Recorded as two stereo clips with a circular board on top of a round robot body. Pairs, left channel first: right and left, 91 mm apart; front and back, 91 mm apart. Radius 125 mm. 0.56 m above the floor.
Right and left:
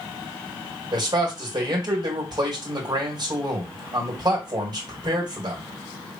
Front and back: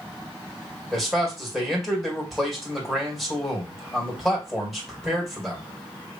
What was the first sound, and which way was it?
A man speaking, 90° left.